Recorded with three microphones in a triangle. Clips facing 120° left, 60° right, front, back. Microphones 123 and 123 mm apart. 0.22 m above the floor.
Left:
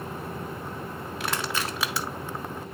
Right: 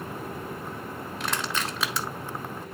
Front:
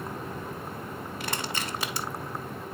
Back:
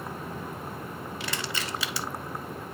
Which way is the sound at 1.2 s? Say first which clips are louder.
Left 1 dB, front 2 dB; 35° left.